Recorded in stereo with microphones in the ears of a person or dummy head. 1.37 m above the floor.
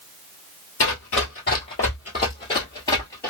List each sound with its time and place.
0.8 s running footsteps: 35° left (ahead or behind), 1.7 m; by 3.3 s 10° left (ahead or behind), 1.5 m